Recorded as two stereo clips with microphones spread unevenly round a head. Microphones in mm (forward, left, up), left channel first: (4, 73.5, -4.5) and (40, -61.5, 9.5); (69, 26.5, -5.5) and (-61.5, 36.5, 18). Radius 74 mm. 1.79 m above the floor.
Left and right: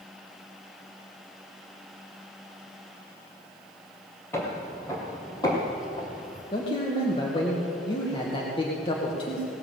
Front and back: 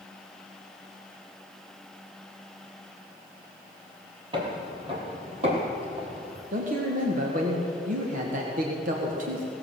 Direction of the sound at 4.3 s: Straight behind.